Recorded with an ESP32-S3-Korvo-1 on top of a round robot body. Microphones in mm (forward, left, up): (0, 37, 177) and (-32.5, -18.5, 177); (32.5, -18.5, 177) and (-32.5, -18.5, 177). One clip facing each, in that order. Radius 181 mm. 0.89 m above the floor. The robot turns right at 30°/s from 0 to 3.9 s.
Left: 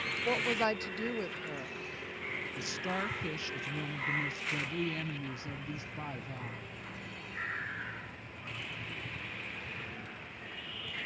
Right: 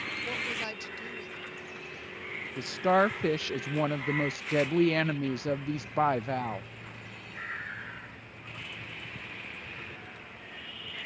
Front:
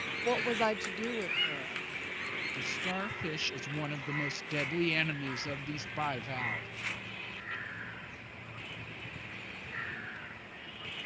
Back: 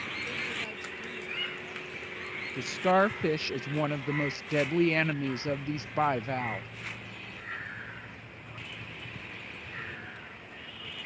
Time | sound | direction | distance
0.2 | a woman speaking | 5° right | ?
2.6 | a woman speaking | 165° right | ?